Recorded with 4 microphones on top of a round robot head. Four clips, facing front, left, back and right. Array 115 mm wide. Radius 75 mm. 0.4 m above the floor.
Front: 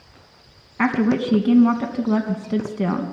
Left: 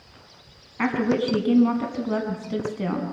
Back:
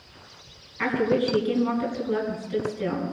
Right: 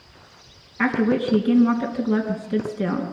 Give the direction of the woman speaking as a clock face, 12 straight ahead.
12 o'clock.